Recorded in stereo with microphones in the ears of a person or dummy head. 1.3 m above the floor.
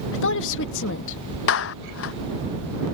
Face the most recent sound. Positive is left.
turn(degrees=75)  # may be behind; listen again after turning